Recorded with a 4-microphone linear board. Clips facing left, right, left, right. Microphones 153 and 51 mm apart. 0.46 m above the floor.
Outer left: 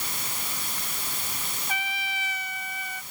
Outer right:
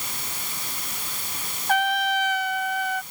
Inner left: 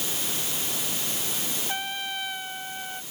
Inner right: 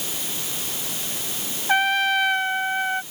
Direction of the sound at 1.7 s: 70° right (ahead or behind).